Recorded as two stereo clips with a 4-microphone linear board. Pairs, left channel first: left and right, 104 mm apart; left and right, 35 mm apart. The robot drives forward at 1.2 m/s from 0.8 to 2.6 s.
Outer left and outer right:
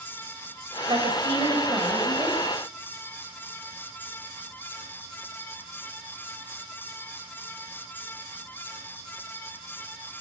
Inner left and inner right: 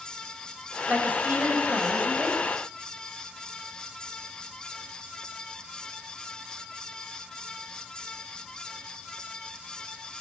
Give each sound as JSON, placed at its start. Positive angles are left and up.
{"t": 0.9, "sound": "a woman speaking", "side_deg": -50, "distance_m": 6.5}